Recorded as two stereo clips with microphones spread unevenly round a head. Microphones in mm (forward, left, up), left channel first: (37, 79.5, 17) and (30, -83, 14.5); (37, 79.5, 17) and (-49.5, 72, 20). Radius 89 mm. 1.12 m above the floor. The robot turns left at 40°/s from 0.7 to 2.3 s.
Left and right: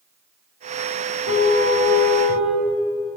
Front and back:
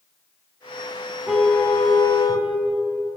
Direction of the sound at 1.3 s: 95° left.